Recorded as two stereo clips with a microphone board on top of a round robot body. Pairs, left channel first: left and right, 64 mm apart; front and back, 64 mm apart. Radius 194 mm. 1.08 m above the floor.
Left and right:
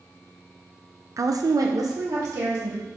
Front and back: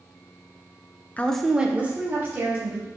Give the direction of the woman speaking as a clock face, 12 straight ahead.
2 o'clock.